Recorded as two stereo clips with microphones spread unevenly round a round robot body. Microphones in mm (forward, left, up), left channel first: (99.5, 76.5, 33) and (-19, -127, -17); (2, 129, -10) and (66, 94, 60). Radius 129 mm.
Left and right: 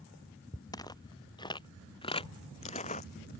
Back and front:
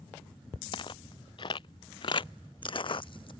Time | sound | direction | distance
0.7 | footsteps | 135° left | ?